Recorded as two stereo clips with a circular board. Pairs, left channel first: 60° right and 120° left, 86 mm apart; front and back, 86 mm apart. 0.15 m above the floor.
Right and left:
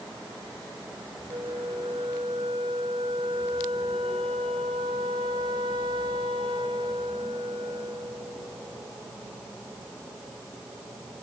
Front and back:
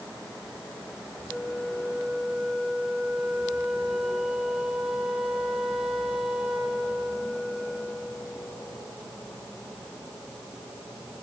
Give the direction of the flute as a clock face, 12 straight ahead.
9 o'clock.